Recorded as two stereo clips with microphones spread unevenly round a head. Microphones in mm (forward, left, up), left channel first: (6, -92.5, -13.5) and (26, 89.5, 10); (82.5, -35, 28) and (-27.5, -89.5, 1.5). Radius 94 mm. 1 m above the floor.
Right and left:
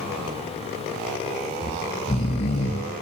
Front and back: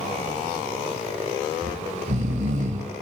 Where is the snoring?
150° right, 1.0 m.